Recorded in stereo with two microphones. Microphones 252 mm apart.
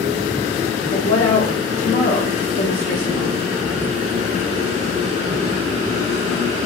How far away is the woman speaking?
About 1.3 m.